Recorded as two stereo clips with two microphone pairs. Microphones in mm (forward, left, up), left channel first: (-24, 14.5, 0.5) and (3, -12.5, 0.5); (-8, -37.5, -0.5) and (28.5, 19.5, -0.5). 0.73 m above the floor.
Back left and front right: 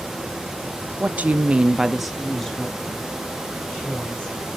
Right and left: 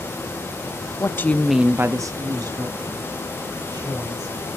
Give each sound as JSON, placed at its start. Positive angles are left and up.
{"t": 1.0, "sound": "a woman speaking", "azimuth_deg": -85, "distance_m": 0.7}